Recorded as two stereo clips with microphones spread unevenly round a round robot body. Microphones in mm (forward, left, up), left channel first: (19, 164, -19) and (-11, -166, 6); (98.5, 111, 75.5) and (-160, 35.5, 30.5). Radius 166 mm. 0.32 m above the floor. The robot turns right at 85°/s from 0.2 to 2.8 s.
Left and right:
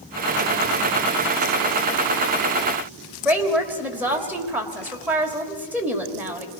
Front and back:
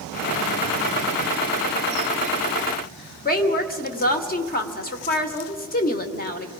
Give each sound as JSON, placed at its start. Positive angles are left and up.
{"t": 3.2, "sound": "a woman speaking", "azimuth_deg": -5, "distance_m": 1.5}